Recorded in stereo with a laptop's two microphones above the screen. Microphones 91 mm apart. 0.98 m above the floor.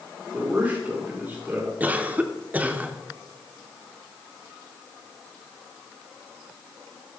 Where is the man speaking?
20° right (ahead or behind), 2 m.